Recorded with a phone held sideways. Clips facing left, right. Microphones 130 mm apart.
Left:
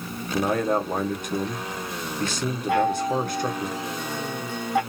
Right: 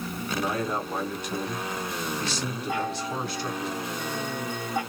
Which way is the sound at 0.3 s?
50° left (ahead or behind).